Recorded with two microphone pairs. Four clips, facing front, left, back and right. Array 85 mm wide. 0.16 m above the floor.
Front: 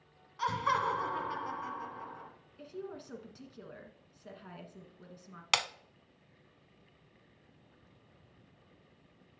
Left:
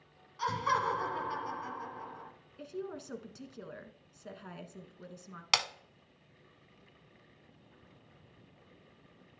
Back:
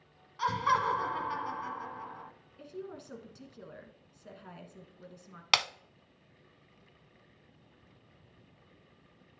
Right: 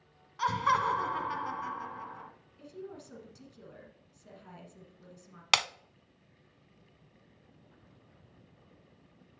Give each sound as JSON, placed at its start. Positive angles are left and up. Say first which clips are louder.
{"t": 0.4, "sound": "laughter", "louder": "right 3 dB, back 2 dB", "azimuth_deg": -105, "distance_m": 1.2}
{"t": 2.6, "sound": "a woman speaking", "louder": "left 4 dB, even", "azimuth_deg": 90, "distance_m": 1.4}
{"t": 5.5, "sound": "breaking glass", "louder": "right 4 dB, back 3 dB", "azimuth_deg": -120, "distance_m": 0.5}